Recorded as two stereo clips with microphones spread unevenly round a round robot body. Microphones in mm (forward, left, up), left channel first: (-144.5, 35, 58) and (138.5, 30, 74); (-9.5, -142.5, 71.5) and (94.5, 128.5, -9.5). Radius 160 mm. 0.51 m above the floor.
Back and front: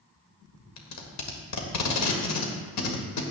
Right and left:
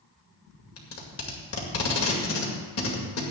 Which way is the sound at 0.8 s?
165° right.